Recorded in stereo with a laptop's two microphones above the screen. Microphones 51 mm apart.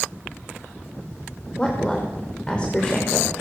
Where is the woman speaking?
20° left (ahead or behind), 4.5 m.